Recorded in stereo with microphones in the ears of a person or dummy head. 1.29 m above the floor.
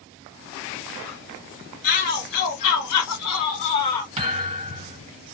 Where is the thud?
30° right (ahead or behind), 1.9 m.